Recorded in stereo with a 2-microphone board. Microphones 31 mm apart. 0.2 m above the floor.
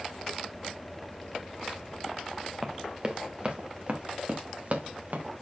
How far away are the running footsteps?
About 1.8 m.